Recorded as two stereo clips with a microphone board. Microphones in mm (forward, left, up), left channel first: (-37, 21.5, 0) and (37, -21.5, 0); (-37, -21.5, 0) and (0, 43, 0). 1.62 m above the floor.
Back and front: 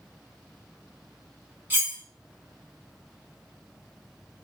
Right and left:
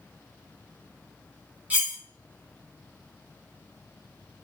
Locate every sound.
1.7 s cutlery clinking: 15° left, 0.8 m